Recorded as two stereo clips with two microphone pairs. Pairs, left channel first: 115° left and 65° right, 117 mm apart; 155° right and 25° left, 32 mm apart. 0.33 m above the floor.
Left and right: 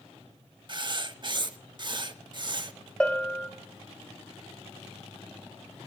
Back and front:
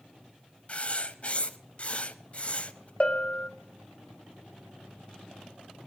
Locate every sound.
0.7 s writing: 115° right, 0.7 m
3.0 s a bell: 175° right, 1.0 m